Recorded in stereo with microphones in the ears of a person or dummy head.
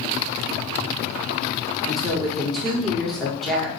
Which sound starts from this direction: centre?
A woman speaking, at 1.9 s.